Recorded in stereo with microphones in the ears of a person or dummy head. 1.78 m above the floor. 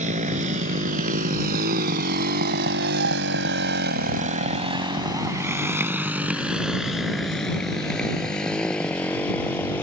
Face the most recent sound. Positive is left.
turn(degrees=5)  # may be behind; listen again after turning